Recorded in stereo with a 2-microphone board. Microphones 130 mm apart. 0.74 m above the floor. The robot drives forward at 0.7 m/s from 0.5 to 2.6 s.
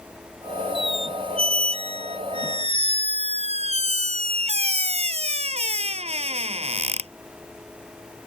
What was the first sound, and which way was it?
A squeak, 50° right (ahead or behind).